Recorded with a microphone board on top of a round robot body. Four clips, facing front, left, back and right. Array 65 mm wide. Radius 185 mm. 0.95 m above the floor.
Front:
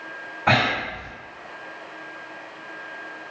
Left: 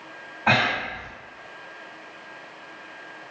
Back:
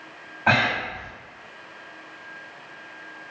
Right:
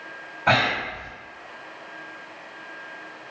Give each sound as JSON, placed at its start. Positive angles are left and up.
{"t": 0.5, "sound": "breathing", "azimuth_deg": 165, "distance_m": 1.6}